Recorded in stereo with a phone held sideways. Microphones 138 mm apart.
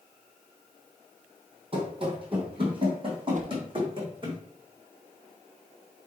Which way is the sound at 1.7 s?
40° right (ahead or behind).